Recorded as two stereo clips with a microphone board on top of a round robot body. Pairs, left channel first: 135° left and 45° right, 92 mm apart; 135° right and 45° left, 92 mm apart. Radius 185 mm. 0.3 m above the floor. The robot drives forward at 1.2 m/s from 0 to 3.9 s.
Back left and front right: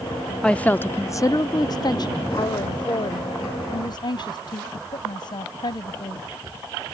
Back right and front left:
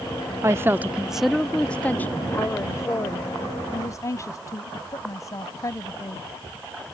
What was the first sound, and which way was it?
A woman speaking, 60° left.